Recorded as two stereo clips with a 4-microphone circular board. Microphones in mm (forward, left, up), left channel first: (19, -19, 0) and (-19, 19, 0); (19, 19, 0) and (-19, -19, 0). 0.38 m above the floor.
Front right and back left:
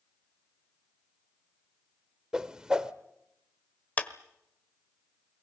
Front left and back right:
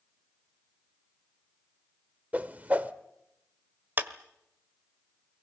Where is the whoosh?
160° right, 1.0 m.